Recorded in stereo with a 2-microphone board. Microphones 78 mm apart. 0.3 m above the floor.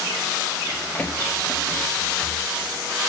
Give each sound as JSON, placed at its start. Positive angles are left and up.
{"t": 0.7, "sound": "running footsteps", "side_deg": 40, "distance_m": 5.5}